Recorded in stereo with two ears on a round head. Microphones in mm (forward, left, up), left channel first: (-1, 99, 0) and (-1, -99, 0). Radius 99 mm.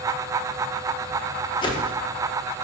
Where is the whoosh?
20° left (ahead or behind), 1.0 m.